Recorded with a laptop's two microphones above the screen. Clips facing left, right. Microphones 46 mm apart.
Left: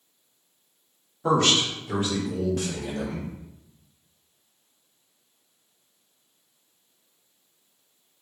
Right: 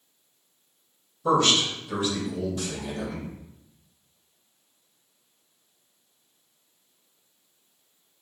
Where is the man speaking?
75° left (ahead or behind), 2 m; by 3.3 s 85° left, 3.5 m.